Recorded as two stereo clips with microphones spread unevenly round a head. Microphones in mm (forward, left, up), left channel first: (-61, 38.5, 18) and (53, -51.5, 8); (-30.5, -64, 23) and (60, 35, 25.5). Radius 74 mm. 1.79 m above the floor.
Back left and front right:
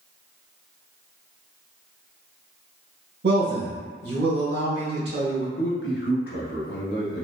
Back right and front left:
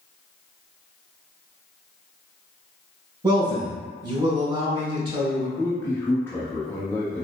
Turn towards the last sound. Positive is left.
turn(degrees=150)